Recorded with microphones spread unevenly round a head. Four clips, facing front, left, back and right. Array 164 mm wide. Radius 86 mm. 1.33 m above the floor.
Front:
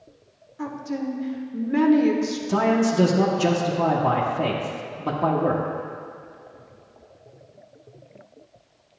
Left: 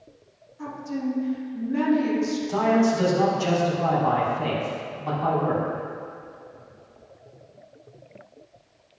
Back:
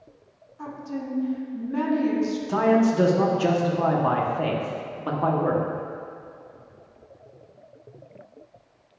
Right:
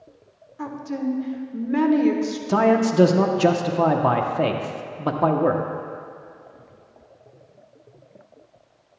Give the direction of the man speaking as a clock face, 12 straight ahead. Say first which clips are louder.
Right 3 dB, back 1 dB; 3 o'clock.